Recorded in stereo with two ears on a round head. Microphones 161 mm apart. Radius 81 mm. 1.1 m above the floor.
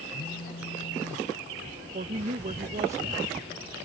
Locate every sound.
0.1 s a phone buzzing: 65° left (ahead or behind)
1.9 s a woman speaking: 40° right (ahead or behind)